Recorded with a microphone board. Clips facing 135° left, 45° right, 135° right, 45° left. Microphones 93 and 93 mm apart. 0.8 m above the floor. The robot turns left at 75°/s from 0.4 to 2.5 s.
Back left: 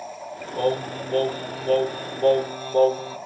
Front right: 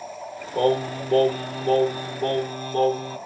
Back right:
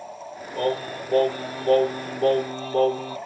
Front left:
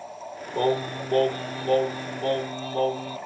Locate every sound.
0.6 s singing: 5° right, 2.5 m; by 3.2 s 150° right, 2.5 m